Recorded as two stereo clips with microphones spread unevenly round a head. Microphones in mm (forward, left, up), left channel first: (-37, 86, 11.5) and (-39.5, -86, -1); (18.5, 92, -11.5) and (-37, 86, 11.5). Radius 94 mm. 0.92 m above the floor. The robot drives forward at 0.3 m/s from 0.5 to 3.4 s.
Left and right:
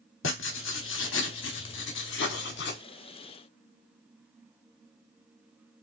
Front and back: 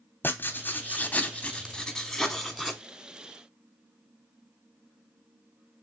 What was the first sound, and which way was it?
Writing, 70° left.